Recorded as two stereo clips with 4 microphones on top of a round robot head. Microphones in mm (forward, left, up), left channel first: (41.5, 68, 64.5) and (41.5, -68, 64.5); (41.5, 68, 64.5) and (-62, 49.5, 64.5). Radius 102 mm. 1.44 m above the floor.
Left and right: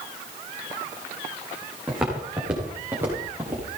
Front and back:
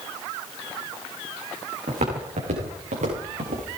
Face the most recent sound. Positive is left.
turn(degrees=-165)